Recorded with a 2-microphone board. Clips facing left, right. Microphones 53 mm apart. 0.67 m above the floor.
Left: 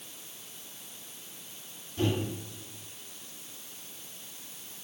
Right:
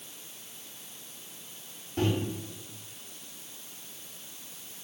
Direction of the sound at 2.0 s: 60° right (ahead or behind).